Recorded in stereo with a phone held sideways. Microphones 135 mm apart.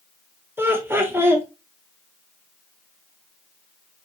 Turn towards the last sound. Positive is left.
turn(degrees=-15)  # may be behind; listen again after turning